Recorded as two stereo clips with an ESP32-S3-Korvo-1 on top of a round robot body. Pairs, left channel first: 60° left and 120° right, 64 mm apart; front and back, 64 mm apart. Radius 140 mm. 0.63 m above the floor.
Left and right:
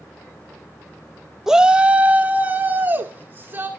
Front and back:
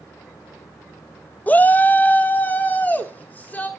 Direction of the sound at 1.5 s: 45° right.